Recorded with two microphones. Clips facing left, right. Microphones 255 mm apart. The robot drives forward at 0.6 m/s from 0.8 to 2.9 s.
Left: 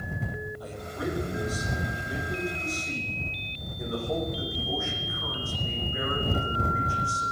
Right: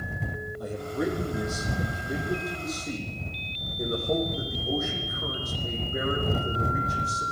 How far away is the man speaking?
About 6 m.